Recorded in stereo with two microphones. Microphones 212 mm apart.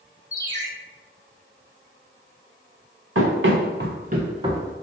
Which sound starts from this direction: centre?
A ringtone, at 0.3 s.